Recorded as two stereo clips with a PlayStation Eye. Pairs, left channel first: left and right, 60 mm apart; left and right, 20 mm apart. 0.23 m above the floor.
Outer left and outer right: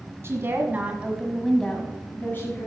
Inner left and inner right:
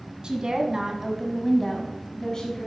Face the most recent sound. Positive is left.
turn(degrees=45)  # may be behind; listen again after turning